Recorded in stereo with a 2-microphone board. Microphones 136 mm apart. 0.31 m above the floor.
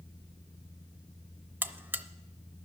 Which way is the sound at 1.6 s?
15° right (ahead or behind).